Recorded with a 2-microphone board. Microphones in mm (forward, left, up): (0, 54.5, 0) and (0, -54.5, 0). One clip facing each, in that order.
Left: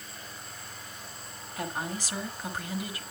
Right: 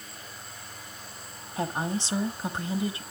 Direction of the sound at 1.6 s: 25° right (ahead or behind).